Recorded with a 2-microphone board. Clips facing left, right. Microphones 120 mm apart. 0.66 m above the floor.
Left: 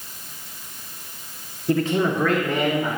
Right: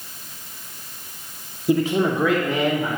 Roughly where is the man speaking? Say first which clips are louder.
Right 1 dB; centre.